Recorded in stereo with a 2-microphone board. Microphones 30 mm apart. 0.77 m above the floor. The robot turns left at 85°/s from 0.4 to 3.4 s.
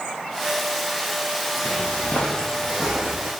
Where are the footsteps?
55° left (ahead or behind), 1.5 m; by 3.3 s 60° right (ahead or behind), 3 m.